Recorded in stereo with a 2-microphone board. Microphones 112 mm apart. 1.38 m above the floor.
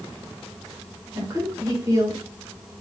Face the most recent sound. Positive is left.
turn(degrees=-30)  # may be behind; listen again after turning